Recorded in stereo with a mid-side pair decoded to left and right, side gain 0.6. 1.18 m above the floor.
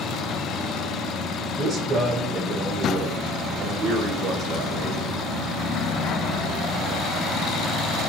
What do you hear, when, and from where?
1.6 s a man speaking: 30° right, 3 m; by 5.2 s 50° right, 5.5 m